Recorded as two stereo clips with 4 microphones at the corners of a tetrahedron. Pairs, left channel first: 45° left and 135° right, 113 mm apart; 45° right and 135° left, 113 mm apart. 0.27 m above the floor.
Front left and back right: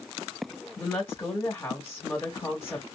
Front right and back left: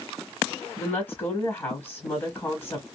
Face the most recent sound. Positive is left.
turn(degrees=0)